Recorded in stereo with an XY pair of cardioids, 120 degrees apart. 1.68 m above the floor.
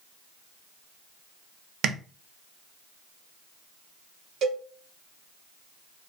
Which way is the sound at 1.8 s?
60° right.